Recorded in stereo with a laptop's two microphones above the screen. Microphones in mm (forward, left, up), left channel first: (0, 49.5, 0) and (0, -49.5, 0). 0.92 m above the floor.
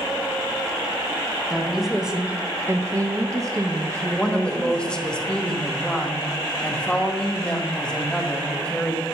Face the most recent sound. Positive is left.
turn(degrees=10)  # may be behind; listen again after turning